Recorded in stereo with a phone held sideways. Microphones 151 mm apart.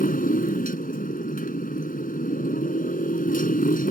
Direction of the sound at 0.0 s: 80° left.